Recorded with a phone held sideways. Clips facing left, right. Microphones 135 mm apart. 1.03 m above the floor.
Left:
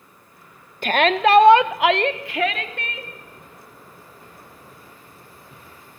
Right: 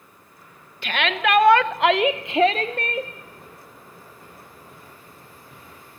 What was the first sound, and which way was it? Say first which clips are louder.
A shout: left 6 dB; 50° left (ahead or behind).